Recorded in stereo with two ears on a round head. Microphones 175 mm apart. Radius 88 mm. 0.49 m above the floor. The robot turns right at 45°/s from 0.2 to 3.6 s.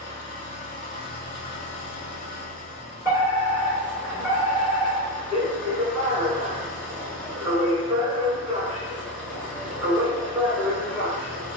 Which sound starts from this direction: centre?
A fire alarm, at 3.0 s.